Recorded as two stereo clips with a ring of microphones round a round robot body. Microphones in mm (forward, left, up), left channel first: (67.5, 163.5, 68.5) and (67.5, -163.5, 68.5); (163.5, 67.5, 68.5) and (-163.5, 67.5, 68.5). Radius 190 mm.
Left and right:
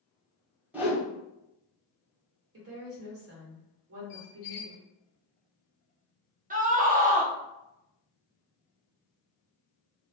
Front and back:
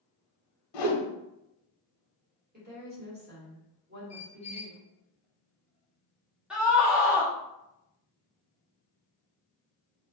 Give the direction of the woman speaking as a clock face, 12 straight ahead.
4 o'clock.